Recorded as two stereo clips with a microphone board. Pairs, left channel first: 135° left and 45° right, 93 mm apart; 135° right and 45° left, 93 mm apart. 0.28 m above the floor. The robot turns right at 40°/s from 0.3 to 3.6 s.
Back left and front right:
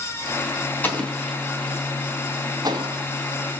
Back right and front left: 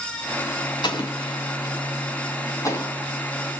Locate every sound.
0.8 s an explosion: 155° right, 3.5 m; by 3.0 s 70° right, 3.5 m